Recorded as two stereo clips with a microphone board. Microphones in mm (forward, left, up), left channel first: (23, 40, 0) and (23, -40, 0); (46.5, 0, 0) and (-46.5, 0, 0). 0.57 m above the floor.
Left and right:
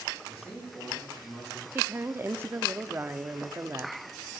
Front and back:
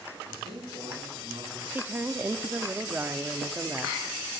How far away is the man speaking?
About 9 m.